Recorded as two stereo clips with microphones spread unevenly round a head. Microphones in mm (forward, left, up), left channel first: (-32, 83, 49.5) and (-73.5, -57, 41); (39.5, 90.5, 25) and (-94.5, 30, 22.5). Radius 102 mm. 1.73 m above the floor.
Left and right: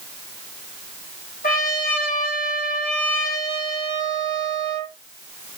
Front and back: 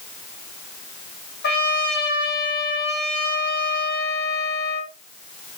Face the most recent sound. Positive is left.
turn(degrees=30)